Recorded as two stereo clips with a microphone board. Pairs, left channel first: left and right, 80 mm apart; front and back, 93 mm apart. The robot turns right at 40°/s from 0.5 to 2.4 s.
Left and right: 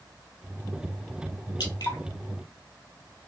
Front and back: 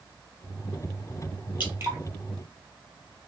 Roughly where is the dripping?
Left.